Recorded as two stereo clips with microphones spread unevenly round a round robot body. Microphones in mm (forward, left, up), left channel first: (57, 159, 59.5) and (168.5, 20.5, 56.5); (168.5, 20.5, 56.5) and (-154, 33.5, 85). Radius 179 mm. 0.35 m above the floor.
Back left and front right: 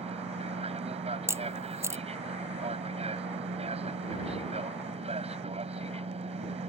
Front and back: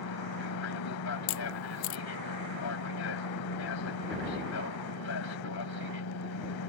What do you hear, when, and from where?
0.0 s an aircraft: 10° right
1.3 s a camera shutter: 25° left